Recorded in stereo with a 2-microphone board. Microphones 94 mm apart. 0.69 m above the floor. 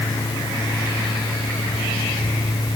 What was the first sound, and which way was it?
Only background noise.